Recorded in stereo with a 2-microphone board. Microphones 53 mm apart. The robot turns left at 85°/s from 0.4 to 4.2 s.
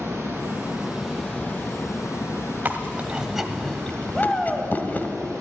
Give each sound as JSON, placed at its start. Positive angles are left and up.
{"t": 0.0, "sound": "running water", "azimuth_deg": -110, "distance_m": 3.5}
{"t": 2.6, "sound": "chewing", "side_deg": -30, "distance_m": 1.3}
{"t": 4.1, "sound": "a shout", "side_deg": 10, "distance_m": 1.9}